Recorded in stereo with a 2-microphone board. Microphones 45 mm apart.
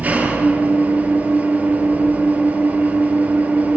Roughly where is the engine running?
Right.